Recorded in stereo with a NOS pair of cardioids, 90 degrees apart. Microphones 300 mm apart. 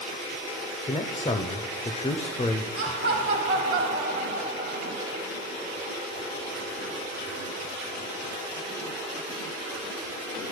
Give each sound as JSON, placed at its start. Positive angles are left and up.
{"t": 0.9, "sound": "a man speaking", "azimuth_deg": 15, "distance_m": 0.6}
{"t": 2.8, "sound": "laughter", "azimuth_deg": -45, "distance_m": 1.5}